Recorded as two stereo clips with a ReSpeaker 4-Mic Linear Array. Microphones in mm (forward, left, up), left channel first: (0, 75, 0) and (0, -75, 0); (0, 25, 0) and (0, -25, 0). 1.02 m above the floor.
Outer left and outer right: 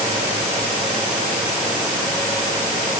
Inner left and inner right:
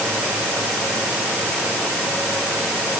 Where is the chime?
No chime in this recording.